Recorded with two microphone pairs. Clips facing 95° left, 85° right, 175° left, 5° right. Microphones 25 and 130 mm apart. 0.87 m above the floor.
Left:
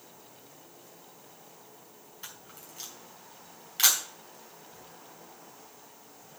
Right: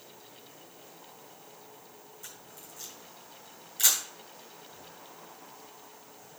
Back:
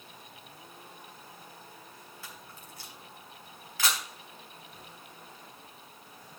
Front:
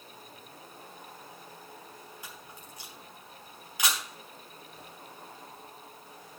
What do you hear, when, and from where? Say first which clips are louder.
2.2 s a camera shutter: left 4 dB, front 1 dB; 65° left, 4.5 m